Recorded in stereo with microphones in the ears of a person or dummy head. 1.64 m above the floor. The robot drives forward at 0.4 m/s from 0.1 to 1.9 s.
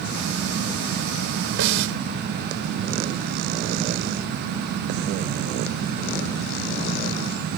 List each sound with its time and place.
1.6 s a snare drum: 80° right